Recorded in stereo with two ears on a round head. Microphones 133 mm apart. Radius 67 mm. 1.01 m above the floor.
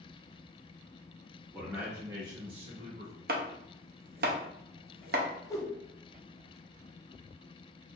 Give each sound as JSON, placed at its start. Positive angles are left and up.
{"t": 1.5, "sound": "a man speaking", "side_deg": -5, "distance_m": 1.8}
{"t": 3.3, "sound": "chopping", "side_deg": -70, "distance_m": 0.7}
{"t": 5.5, "sound": "a whoosh", "side_deg": 20, "distance_m": 0.6}